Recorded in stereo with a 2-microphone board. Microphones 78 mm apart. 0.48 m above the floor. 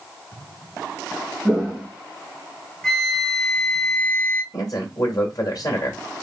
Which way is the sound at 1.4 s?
10° right (ahead or behind).